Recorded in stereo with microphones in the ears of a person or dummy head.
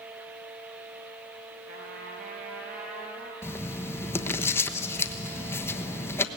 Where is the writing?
10° left (ahead or behind), 1.0 m.